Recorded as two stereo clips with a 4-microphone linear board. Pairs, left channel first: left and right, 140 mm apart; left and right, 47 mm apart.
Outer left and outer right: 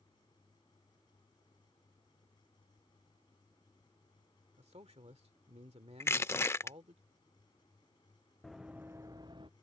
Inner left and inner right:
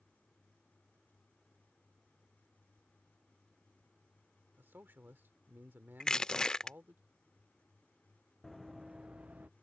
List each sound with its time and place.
4.6 s a man speaking: 45° right (ahead or behind)
6.0 s crushing: 20° left (ahead or behind)
8.4 s running footsteps: centre (ahead or behind); by 9.5 s 35° right (ahead or behind)